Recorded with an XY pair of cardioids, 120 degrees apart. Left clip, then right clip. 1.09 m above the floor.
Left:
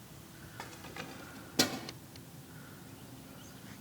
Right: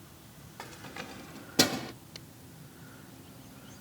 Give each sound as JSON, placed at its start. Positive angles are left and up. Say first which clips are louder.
{"t": 0.6, "sound": "keys jangling", "louder": "right 3 dB", "azimuth_deg": -5}